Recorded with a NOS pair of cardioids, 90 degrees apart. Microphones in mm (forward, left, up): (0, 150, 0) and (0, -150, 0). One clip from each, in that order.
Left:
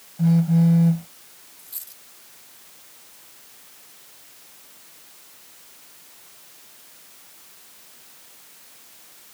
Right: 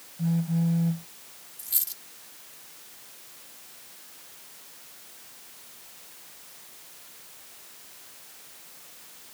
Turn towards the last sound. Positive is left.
turn(degrees=-60)